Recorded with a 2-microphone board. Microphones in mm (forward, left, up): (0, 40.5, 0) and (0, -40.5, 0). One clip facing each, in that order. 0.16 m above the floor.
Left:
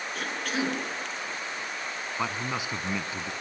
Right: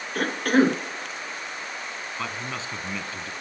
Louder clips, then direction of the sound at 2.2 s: Left 2 dB; 15° left (ahead or behind).